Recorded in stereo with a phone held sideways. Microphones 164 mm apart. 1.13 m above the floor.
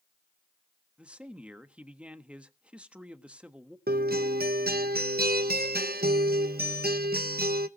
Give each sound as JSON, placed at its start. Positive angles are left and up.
{"t": 1.0, "sound": "a man speaking", "side_deg": -5, "distance_m": 1.4}
{"t": 3.9, "sound": "a guitar", "side_deg": -70, "distance_m": 1.0}